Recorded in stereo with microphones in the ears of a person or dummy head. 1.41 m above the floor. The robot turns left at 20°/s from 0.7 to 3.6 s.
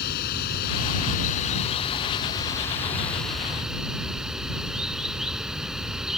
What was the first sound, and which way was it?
Running water, 55° left.